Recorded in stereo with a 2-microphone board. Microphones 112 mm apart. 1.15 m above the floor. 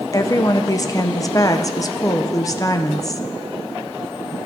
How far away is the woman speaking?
About 0.5 m.